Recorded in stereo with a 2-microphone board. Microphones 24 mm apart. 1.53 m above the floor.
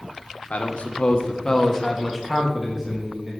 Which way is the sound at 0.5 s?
65° left (ahead or behind).